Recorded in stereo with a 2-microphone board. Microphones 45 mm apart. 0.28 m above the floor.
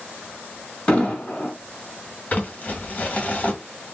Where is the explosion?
25° left (ahead or behind), 1.7 m.